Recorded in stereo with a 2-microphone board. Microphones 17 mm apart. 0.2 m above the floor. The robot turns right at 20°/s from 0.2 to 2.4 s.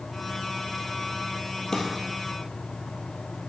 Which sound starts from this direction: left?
A drawer, at 1.7 s.